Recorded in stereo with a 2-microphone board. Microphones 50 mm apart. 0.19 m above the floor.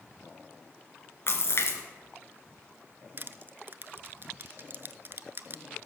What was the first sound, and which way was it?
A splash, 55° left (ahead or behind).